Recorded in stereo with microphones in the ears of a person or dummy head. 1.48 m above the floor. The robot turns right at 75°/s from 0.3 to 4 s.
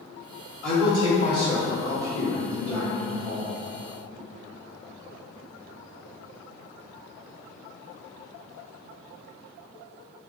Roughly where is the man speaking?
Ahead.